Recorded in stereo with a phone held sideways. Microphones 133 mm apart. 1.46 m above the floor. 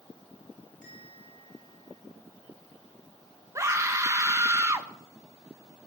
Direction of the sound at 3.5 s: 20° right (ahead or behind).